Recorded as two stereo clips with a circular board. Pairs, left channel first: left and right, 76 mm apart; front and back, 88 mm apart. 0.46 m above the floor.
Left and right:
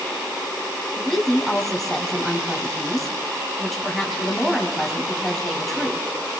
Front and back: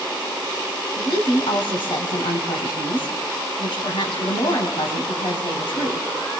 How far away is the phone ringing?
I don't hear a phone ringing.